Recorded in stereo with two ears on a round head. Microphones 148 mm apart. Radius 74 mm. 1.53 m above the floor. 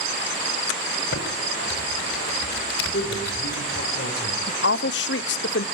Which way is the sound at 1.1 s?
70° left (ahead or behind).